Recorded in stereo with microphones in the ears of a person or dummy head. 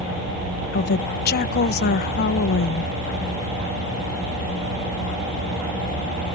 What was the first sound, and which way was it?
A woman speaking, 55° left (ahead or behind).